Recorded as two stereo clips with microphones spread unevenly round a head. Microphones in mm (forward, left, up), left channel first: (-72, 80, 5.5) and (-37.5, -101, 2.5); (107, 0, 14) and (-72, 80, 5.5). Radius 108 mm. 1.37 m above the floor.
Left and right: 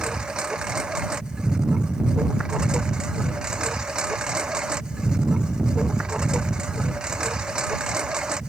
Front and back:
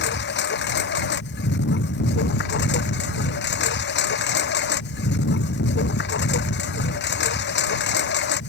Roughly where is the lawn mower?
Ahead.